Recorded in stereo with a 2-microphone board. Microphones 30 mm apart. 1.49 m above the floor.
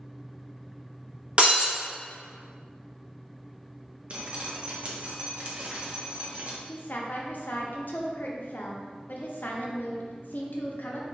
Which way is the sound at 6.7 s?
75° left (ahead or behind).